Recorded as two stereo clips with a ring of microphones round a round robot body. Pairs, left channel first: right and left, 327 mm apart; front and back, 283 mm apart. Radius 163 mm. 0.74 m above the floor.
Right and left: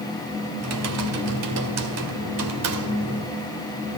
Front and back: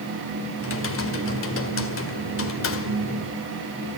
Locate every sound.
0.6 s typing on a keyboard: 45° left, 2 m